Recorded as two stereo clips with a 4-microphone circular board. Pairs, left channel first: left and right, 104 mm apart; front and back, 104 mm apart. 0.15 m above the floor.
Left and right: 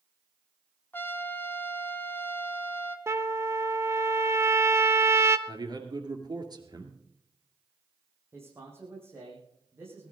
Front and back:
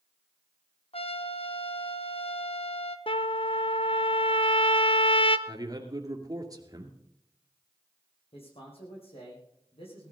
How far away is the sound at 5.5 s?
About 2.5 m.